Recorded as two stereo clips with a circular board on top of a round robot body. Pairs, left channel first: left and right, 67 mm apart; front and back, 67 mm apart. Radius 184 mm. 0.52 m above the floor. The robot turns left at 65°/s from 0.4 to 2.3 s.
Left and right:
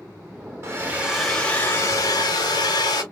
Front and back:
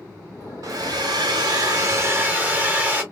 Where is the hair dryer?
145° right, 0.8 m; by 3.0 s 110° left, 0.8 m.